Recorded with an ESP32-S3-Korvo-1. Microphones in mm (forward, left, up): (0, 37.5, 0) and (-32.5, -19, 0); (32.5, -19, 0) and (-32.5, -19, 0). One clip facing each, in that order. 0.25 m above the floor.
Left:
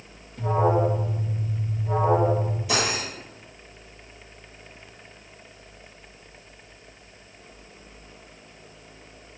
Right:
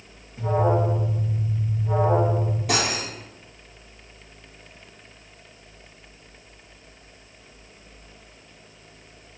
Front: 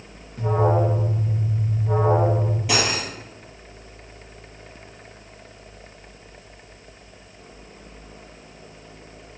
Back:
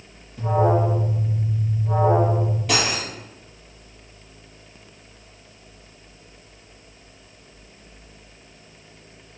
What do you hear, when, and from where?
0.4 s an alarm: 45° right, 3.5 m
2.7 s cutlery clinking: 85° right, 4 m